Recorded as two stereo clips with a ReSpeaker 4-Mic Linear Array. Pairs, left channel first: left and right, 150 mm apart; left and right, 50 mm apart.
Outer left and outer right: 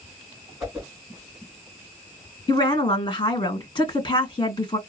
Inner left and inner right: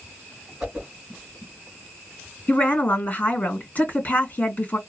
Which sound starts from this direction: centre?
A whoosh, at 0.6 s.